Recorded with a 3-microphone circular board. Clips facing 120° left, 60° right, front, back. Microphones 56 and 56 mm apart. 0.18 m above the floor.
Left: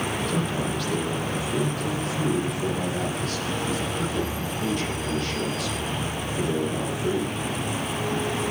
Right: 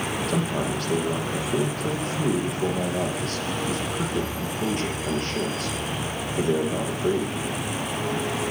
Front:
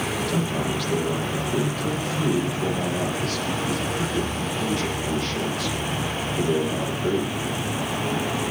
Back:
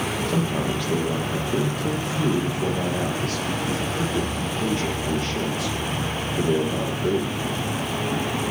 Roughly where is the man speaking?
Behind right.